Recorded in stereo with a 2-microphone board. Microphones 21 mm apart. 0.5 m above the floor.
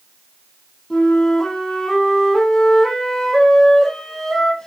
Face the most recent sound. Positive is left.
turn(degrees=30)  # may be behind; listen again after turning